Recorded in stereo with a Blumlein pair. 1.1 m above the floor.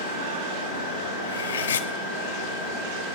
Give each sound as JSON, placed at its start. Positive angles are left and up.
{"t": 1.2, "sound": "cutlery clinking", "azimuth_deg": 65, "distance_m": 0.7}